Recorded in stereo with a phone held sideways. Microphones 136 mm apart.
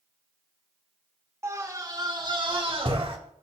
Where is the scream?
20° right (ahead or behind), 2.5 m; by 3.2 s 50° right (ahead or behind), 3.5 m.